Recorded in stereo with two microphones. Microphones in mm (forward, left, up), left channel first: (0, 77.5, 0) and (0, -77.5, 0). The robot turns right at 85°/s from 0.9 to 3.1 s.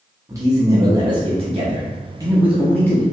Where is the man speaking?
150° right, 0.7 m; by 3.0 s 35° left, 0.7 m.